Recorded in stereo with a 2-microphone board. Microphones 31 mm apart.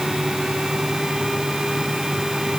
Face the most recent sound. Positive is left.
No sound to turn to.